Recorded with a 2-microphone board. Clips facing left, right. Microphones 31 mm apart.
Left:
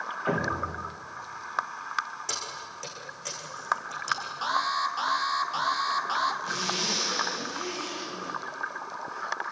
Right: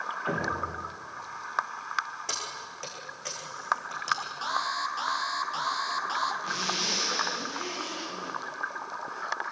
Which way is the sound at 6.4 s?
15° right (ahead or behind).